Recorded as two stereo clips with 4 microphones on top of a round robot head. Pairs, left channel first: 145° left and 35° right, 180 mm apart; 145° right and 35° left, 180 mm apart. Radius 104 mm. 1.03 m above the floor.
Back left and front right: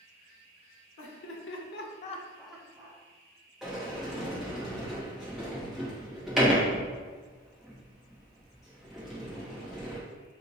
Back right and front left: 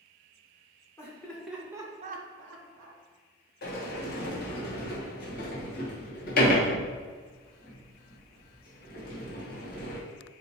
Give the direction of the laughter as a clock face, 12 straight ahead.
7 o'clock.